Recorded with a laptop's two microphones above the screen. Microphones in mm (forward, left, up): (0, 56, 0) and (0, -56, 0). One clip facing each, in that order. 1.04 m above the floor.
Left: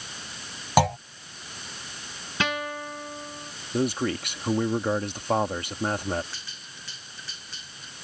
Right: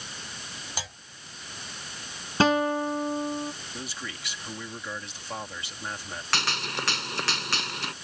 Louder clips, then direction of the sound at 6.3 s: Right 15 dB; 80° right.